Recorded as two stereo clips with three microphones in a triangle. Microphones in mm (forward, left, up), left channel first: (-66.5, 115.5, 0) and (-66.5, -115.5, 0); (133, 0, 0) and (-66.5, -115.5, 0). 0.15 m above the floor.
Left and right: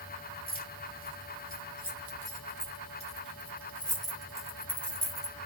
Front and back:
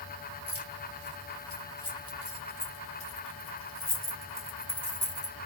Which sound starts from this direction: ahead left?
Keys jangling, at 0.5 s.